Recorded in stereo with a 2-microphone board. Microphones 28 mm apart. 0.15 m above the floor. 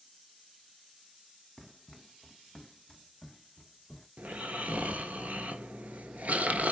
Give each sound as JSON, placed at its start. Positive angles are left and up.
{"t": 1.6, "sound": "running footsteps", "side_deg": -5, "distance_m": 0.7}
{"t": 4.2, "sound": "snoring", "side_deg": -65, "distance_m": 0.7}